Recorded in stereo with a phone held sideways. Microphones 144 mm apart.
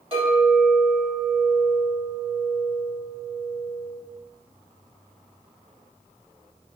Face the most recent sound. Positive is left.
turn(degrees=-35)  # may be behind; listen again after turning